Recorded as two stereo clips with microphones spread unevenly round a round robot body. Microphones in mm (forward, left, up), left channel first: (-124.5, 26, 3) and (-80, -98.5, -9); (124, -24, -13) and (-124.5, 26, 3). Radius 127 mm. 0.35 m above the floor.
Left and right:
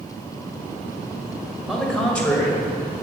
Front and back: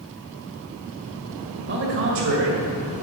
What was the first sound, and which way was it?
A man speaking, 160° right.